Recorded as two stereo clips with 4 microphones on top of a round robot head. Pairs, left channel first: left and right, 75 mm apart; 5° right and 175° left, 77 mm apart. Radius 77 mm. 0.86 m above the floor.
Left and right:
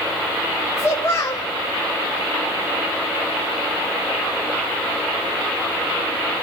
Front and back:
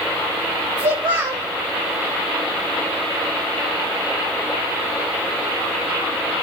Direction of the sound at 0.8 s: 145° left.